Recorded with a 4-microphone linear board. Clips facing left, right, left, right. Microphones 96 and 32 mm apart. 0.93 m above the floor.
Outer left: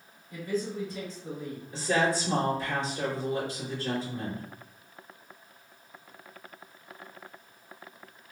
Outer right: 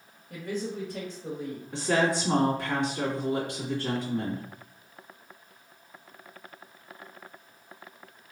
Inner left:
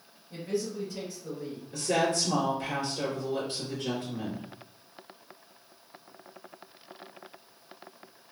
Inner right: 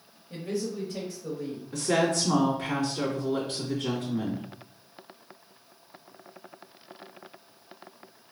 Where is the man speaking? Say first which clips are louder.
Outer left 1 dB, even; 60° right (ahead or behind), 1.7 m.